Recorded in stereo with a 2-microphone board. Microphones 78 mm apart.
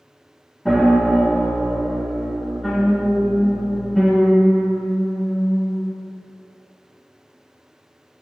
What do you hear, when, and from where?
0.7 s a piano: 5° left (ahead or behind), 0.8 m